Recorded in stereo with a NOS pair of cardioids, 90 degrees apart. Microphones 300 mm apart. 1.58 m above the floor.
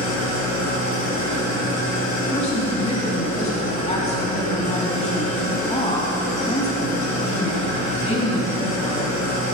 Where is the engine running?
60° left, 4 m.